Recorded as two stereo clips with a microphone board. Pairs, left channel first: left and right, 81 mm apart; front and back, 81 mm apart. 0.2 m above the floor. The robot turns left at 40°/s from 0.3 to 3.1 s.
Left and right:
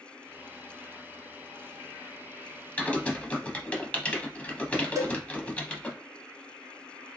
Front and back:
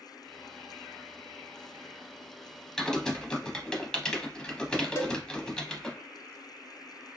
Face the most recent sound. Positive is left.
turn(degrees=-50)